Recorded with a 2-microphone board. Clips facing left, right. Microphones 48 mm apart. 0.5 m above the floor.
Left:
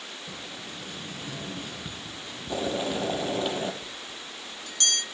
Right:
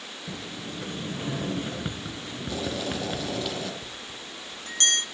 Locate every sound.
0.3 s a sliding door: 35° right (ahead or behind), 1.0 m
2.5 s boiling: 25° left (ahead or behind), 4 m
3.8 s a bell: 45° right (ahead or behind), 1.2 m